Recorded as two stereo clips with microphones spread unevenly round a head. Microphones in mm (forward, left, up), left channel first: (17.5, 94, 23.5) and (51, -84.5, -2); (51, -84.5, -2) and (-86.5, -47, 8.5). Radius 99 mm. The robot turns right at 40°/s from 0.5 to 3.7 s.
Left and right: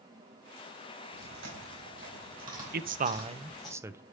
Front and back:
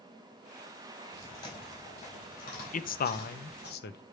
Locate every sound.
1.1 s chewing: 90° right, 4.5 m; by 3.7 s 15° left, 4.5 m
2.7 s a man speaking: 45° right, 0.7 m; by 4.0 s 5° right, 0.7 m